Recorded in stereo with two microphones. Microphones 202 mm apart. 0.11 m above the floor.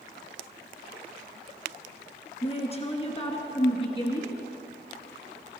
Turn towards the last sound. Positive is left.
turn(degrees=25)  # may be behind; listen again after turning